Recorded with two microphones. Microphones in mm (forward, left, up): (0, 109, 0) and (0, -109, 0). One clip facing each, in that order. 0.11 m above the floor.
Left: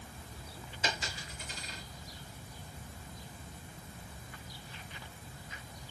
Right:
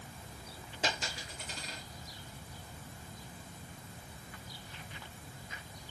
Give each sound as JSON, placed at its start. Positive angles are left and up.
{"t": 0.8, "sound": "a dropped coin", "side_deg": -80, "distance_m": 3.0}